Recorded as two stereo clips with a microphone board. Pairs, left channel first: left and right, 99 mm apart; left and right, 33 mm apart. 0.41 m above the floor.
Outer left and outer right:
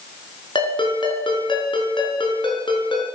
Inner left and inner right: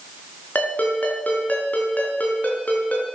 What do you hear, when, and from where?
0.6 s a ringtone: 55° left (ahead or behind), 4 m